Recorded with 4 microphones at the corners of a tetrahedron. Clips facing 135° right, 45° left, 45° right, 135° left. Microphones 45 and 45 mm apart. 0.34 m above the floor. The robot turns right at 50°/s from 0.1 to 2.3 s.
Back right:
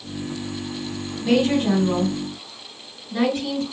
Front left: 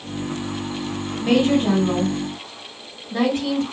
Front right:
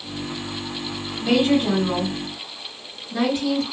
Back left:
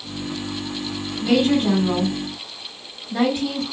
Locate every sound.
1.2 s a woman speaking: 20° left, 1.9 m; by 3.6 s 75° left, 1.9 m